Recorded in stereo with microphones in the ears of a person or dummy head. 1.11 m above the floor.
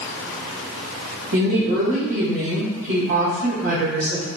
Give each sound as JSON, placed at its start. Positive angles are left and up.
{"t": 1.3, "sound": "a woman speaking", "side_deg": -75, "distance_m": 1.0}